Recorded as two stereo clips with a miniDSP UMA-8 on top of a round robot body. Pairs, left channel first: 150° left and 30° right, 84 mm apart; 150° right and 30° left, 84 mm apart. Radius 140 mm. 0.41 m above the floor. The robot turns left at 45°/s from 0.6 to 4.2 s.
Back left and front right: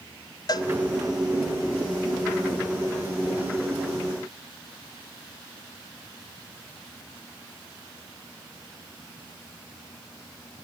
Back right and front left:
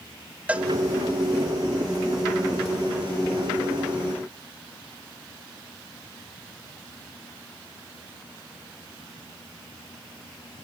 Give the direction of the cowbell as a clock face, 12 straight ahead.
8 o'clock.